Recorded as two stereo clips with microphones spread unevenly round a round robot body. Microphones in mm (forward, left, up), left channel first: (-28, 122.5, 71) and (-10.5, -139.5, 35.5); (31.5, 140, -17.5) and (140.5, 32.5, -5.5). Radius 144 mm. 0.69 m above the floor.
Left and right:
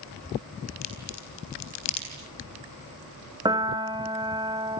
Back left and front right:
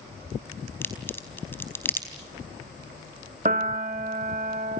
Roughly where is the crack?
Ahead left.